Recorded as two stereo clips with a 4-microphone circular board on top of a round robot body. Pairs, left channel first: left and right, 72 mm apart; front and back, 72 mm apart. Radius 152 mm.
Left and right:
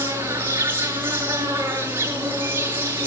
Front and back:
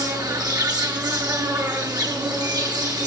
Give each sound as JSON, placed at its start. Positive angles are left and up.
{"t": 0.0, "sound": "an insect", "azimuth_deg": -150, "distance_m": 5.5}